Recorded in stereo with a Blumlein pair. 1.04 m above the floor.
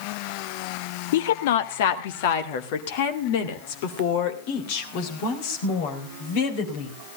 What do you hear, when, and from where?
1.1 s a woman speaking: 55° left, 1.1 m; by 6.9 s 50° left, 4.5 m